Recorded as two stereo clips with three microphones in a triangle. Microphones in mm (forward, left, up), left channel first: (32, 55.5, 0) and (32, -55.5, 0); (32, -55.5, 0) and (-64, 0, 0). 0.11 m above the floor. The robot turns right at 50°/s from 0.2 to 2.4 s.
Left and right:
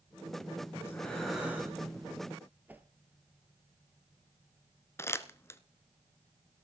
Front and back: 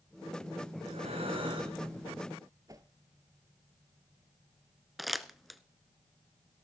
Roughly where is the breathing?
Behind left.